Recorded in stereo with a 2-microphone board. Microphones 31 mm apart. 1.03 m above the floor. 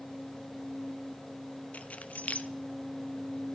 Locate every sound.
1.7 s keys jangling: 50° left (ahead or behind), 0.9 m